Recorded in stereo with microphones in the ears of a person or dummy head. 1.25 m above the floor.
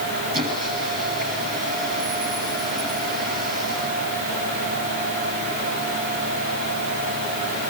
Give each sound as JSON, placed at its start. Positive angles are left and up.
{"t": 0.3, "sound": "a squeak", "side_deg": -40, "distance_m": 8.5}